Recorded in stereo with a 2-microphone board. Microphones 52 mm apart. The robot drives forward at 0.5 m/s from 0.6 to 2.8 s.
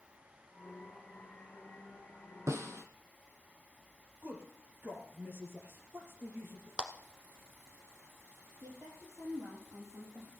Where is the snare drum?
65° right (ahead or behind), 1.0 m; by 2.8 s 60° right (ahead or behind), 1.0 m.